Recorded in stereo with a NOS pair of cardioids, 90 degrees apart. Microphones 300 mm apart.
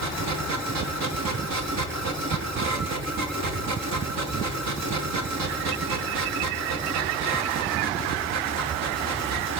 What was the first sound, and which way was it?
A machine running, 65° right.